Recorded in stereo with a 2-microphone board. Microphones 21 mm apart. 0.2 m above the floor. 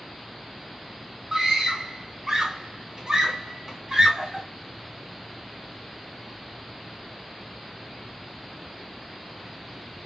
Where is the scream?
35° right (ahead or behind), 2 m.